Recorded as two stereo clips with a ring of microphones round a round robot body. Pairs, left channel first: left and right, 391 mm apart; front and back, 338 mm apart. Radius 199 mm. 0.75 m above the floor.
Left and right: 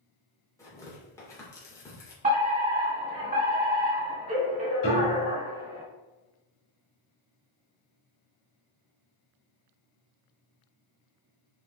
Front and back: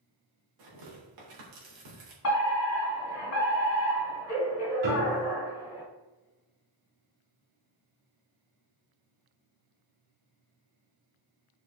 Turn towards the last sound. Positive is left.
turn(degrees=160)